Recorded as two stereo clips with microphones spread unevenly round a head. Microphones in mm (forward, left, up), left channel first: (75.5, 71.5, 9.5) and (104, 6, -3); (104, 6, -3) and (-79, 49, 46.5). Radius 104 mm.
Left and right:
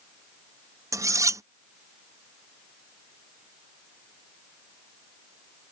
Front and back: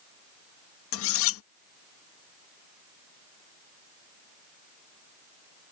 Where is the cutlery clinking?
15° right.